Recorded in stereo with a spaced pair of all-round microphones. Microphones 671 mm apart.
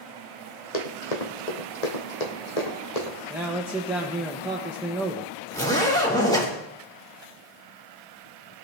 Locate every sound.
0.7 s running footsteps: 65° left (ahead or behind), 2.5 m; by 3.2 s 70° left (ahead or behind), 3 m
3.3 s a man speaking: 5° right (ahead or behind), 1.2 m
5.5 s a zipper: 5° left (ahead or behind), 3 m